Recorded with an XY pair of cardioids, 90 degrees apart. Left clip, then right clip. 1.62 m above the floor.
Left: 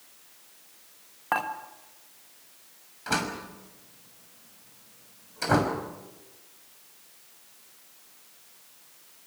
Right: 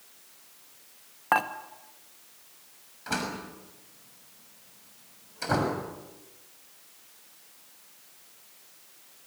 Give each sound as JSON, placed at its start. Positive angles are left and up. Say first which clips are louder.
{"t": 1.3, "sound": "dishes clattering", "louder": "right 3 dB", "azimuth_deg": -25, "distance_m": 1.8}
{"t": 3.1, "sound": "a door slam", "louder": "left 3 dB", "azimuth_deg": 25, "distance_m": 6.0}